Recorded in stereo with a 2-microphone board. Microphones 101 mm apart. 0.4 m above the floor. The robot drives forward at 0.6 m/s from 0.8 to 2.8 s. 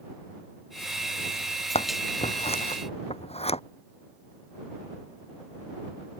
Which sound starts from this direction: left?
Scissors, at 1.8 s.